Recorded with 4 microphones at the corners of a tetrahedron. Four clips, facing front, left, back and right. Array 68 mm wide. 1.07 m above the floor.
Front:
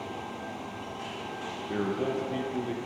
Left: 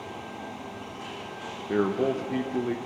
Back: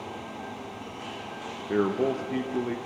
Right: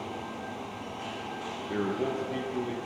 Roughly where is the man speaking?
Behind left.